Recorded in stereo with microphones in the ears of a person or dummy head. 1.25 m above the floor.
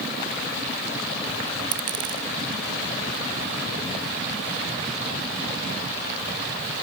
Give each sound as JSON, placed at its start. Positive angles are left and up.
{"t": 1.7, "sound": "a dropped coin", "side_deg": -30}